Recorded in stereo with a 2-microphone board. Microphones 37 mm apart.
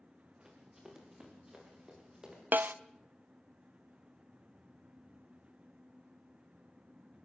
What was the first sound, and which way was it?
Running footsteps, 10° right (ahead or behind).